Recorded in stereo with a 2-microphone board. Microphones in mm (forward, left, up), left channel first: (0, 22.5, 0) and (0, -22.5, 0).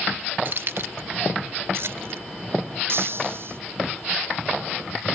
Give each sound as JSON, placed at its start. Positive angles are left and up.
{"t": 0.5, "sound": "keys jangling", "side_deg": -50}
{"t": 2.9, "sound": "breaking glass", "side_deg": -55}